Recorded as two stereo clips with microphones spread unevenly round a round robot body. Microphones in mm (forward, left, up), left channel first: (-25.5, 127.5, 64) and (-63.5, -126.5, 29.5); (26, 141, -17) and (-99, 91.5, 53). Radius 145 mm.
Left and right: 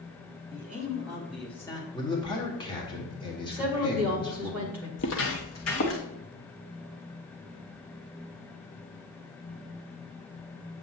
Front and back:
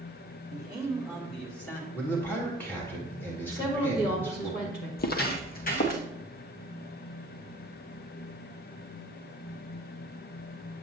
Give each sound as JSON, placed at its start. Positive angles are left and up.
{"t": 0.5, "sound": "a man speaking", "azimuth_deg": -65, "distance_m": 2.0}
{"t": 1.9, "sound": "a man speaking", "azimuth_deg": 10, "distance_m": 1.5}
{"t": 3.5, "sound": "a woman speaking", "azimuth_deg": -20, "distance_m": 2.5}
{"t": 5.0, "sound": "footsteps", "azimuth_deg": 45, "distance_m": 0.7}